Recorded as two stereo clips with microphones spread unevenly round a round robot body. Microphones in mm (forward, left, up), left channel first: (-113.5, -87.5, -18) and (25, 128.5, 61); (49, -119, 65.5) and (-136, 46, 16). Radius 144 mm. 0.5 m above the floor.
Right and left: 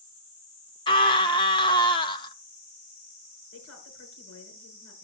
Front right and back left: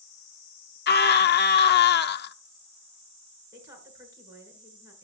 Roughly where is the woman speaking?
Behind right.